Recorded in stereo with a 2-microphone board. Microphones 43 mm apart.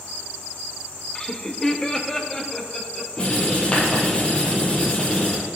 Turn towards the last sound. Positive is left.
turn(degrees=25)  # may be behind; listen again after turning